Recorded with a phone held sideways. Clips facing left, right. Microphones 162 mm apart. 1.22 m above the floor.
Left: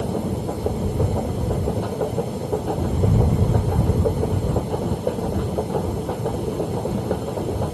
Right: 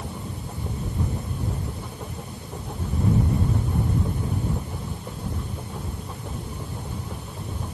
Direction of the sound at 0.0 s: 70° left (ahead or behind).